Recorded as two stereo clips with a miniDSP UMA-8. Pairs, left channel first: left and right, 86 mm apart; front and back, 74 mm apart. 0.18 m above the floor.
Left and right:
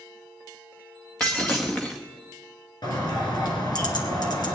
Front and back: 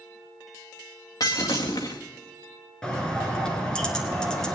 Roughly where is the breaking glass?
Ahead.